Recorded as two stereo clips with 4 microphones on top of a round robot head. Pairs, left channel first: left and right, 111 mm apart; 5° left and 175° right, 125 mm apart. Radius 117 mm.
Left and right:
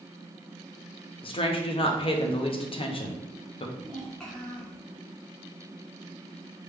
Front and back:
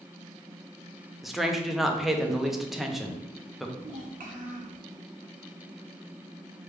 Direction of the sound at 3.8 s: 175° left.